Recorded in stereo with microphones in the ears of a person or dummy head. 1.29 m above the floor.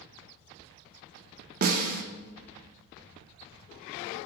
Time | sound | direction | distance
1.6 | a snare drum | 45° right (ahead or behind) | 0.5 m